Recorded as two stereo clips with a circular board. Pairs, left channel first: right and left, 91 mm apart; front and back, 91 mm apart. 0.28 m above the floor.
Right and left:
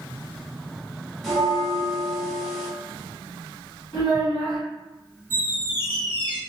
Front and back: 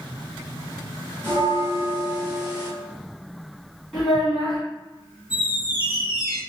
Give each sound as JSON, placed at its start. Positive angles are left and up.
{"t": 1.2, "sound": "a bell", "azimuth_deg": 0, "distance_m": 1.0}
{"t": 3.9, "sound": "a child speaking", "azimuth_deg": -80, "distance_m": 2.0}
{"t": 5.3, "sound": "a squeak", "azimuth_deg": -30, "distance_m": 1.9}